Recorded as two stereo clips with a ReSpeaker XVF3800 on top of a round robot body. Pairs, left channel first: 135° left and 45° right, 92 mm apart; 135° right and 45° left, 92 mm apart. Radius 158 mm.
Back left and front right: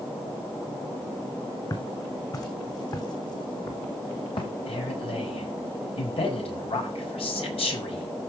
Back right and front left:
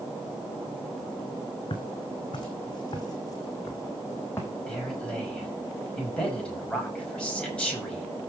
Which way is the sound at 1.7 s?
170° right.